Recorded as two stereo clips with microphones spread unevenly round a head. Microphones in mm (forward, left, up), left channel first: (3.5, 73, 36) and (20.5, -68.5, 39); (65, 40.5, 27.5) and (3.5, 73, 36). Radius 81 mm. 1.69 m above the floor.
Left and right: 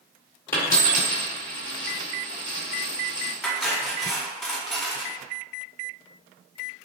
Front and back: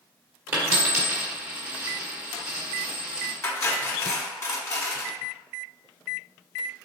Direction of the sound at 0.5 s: 160° left.